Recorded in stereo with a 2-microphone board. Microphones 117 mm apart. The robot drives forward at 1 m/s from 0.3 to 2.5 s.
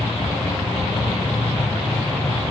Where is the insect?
80° left, 5.5 m; by 2.5 s 75° left (ahead or behind), 5.5 m.